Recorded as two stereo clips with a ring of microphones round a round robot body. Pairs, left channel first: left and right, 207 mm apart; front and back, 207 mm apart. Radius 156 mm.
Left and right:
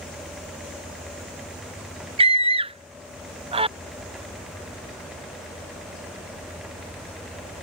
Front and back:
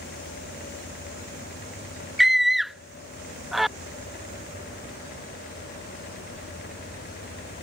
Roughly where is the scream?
Right.